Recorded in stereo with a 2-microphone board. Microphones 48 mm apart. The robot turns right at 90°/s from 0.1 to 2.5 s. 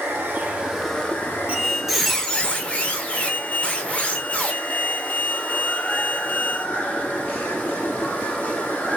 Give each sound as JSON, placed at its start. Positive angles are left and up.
{"t": 0.0, "sound": "running water", "azimuth_deg": -70, "distance_m": 0.9}
{"t": 1.5, "sound": "a squeak", "azimuth_deg": -40, "distance_m": 0.6}